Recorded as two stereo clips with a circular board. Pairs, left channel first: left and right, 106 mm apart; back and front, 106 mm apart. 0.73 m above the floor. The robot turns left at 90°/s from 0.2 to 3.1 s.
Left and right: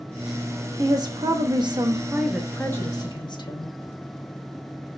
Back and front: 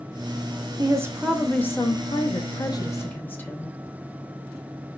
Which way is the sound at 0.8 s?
35° right.